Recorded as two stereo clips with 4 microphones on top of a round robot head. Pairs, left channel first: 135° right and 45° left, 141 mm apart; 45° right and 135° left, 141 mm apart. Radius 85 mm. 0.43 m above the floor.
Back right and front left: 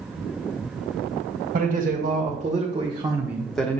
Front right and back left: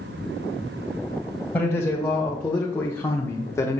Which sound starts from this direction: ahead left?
A man speaking, at 1.5 s.